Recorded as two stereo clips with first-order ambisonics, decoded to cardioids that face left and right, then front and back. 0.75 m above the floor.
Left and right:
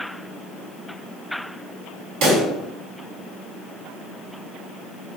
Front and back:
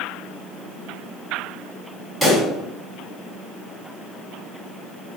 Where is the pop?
95° right, 1.7 m.